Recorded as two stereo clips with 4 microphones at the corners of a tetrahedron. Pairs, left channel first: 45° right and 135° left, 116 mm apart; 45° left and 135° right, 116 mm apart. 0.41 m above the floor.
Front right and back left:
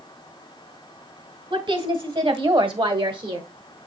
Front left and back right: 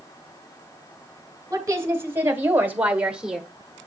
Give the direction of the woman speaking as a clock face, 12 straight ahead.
6 o'clock.